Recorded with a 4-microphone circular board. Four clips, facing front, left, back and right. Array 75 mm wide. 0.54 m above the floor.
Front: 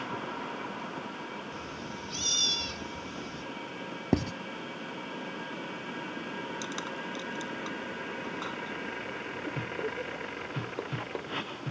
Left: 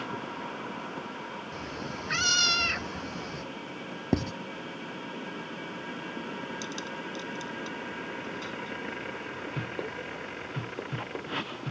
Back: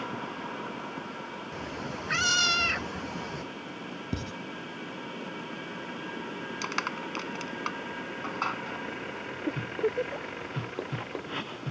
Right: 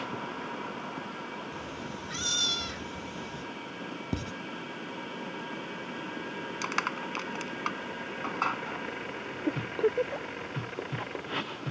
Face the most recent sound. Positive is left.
turn(degrees=-120)